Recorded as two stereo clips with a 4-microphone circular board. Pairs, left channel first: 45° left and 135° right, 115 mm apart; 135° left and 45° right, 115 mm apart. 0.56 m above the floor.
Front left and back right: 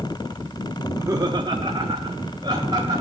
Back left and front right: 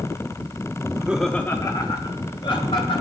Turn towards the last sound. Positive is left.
turn(degrees=175)